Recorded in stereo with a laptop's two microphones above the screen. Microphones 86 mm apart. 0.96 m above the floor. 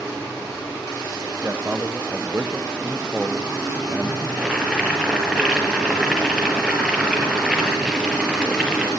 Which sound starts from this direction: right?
A man speaking, at 1.4 s.